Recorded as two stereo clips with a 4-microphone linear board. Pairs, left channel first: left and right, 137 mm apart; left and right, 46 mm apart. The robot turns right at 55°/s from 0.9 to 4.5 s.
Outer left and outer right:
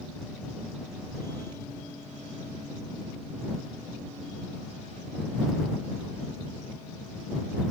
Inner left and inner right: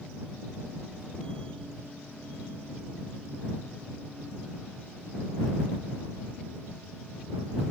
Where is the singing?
No singing in this recording.